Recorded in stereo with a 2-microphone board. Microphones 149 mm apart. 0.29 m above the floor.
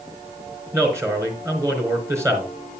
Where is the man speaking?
20° right (ahead or behind), 4 m.